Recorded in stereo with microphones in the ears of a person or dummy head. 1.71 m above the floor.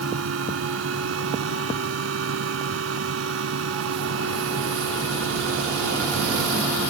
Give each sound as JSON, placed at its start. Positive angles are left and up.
{"t": 0.0, "sound": "a fan", "side_deg": -85}